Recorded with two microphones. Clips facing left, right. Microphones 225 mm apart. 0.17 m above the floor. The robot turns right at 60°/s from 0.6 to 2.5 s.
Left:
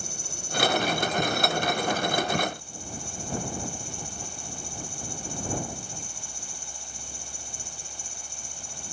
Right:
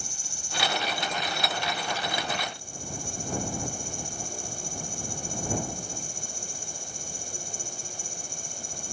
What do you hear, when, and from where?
0.0 s an insect: 110° left; by 8.9 s 135° right